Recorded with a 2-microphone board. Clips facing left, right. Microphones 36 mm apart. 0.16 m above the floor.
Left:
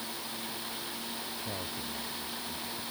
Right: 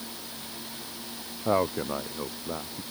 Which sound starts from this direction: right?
A man speaking, at 1.4 s.